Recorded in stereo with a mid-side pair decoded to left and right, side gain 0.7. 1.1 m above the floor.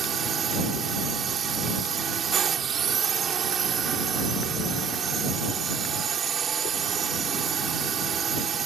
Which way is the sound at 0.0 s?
35° right.